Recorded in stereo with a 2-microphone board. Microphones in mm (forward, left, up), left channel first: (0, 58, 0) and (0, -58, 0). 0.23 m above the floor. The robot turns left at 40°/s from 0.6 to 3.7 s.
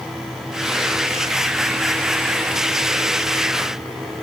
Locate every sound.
Only background noise.